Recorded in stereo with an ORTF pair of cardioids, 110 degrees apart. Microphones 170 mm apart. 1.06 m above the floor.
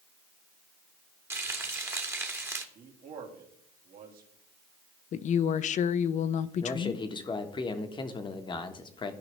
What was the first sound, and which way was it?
Frying, 15° right.